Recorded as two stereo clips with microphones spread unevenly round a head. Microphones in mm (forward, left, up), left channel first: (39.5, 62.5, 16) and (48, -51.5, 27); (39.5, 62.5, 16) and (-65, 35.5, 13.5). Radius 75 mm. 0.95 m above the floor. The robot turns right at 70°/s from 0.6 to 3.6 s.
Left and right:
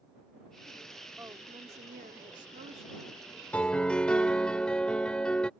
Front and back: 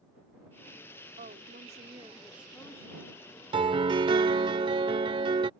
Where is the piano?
175° left; by 5.5 s straight behind.